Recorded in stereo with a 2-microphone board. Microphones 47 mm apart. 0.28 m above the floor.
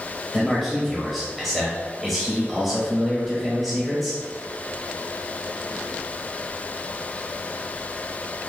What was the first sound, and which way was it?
A man speaking, 5° right (ahead or behind).